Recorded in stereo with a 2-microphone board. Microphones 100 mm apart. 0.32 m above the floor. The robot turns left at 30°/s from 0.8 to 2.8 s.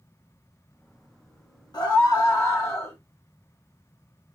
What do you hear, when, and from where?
1.7 s a scream: 70° left, 1.8 m; by 3.0 s 40° left, 1.8 m